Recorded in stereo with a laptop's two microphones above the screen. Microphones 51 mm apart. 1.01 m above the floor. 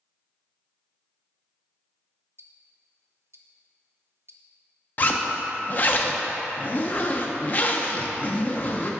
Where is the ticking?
60° right (ahead or behind), 0.6 m.